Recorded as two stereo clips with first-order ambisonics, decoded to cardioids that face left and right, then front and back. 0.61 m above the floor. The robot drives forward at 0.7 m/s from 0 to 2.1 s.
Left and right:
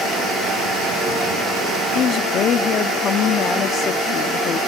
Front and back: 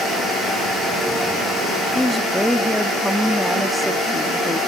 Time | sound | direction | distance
1.9 | a woman speaking | 75° left | ?